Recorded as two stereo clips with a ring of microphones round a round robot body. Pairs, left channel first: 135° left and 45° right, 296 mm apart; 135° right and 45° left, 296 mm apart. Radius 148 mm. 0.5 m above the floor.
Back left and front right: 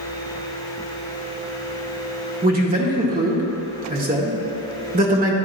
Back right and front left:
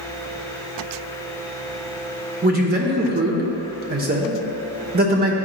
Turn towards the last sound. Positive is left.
turn(degrees=0)